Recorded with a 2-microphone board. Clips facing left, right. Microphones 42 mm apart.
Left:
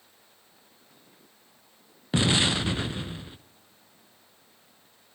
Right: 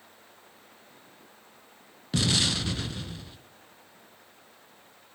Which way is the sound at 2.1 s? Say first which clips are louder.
Left 3 dB; 25° left (ahead or behind).